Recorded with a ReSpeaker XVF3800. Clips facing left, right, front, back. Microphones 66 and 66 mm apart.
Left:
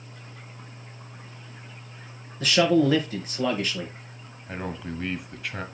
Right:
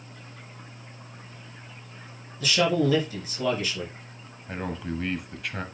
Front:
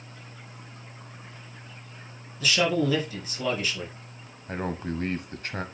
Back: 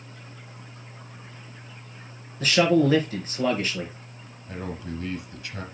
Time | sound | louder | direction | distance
2.4 | a man speaking | left 3 dB, back 5 dB | 135° left | 4 m
4.5 | a man speaking | right 1 dB, front 3 dB | straight ahead | 1.2 m